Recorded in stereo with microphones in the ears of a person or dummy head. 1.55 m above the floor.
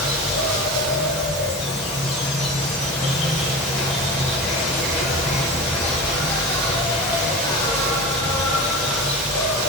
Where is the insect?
Centre (ahead or behind), 9 m.